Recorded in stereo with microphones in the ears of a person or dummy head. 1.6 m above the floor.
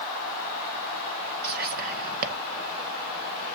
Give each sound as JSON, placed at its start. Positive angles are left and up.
{"t": 1.4, "sound": "whispering", "side_deg": -55, "distance_m": 1.1}